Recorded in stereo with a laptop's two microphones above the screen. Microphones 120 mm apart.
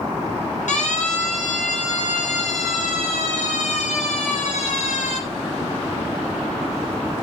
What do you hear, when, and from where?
0.7 s a siren: 80° left, 6.5 m; by 5.2 s 75° left (ahead or behind), 10.5 m